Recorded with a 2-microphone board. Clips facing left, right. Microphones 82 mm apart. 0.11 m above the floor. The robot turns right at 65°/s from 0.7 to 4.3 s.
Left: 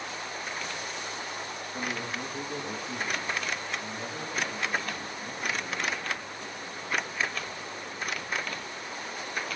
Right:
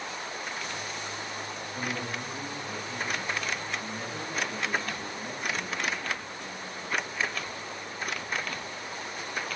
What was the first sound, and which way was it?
A man speaking, 60° left.